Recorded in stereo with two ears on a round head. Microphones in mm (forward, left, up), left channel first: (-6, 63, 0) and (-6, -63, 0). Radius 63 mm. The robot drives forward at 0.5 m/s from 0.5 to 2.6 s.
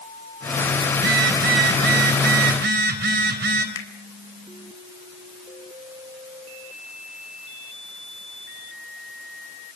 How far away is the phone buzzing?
About 4.5 m.